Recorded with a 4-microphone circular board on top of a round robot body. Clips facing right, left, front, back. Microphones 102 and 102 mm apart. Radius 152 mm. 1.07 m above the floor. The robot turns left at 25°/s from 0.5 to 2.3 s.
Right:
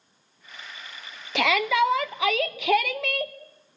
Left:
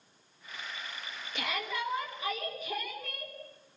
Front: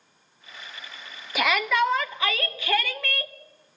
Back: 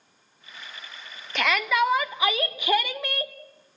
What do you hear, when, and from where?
1.4 s a shout: 85° right, 1.0 m; by 3.3 s 105° right, 1.0 m